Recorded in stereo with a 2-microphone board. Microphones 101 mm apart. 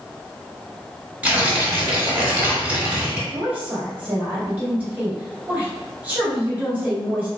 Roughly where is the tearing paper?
Centre.